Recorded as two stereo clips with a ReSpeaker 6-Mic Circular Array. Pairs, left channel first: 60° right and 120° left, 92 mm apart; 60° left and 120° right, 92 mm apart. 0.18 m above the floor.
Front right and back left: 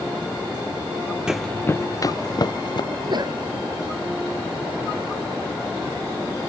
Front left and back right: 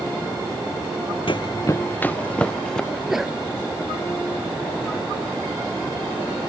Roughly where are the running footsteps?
Ahead left.